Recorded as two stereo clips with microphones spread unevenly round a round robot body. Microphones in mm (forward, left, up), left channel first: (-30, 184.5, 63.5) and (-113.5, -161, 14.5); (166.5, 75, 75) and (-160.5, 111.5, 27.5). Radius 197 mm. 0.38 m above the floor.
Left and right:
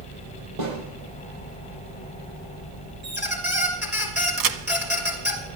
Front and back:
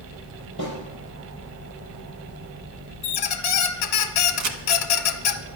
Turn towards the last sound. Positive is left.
turn(degrees=-140)